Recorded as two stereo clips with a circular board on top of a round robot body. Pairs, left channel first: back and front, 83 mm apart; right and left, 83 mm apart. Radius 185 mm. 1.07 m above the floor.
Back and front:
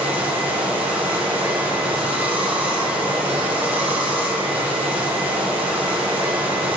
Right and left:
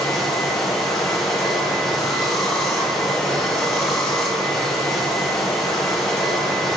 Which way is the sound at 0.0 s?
5° right.